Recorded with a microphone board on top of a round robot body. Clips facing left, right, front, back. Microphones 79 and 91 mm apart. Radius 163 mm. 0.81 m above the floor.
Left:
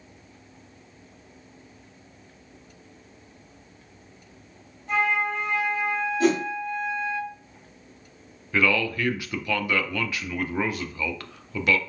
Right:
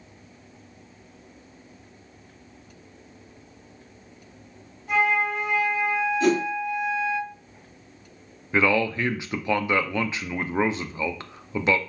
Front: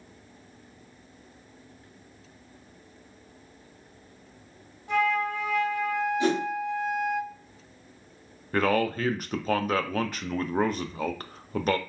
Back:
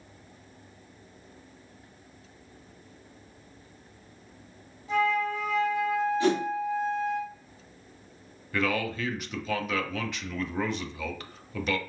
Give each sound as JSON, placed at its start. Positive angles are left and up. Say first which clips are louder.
{"t": 4.9, "sound": "a flute", "louder": "right 2 dB, even", "azimuth_deg": -5, "distance_m": 1.2}
{"t": 6.2, "sound": "a whoosh", "louder": "even, even", "azimuth_deg": 70, "distance_m": 1.5}
{"t": 8.5, "sound": "a man speaking", "louder": "right 2 dB, front 5 dB", "azimuth_deg": -30, "distance_m": 0.5}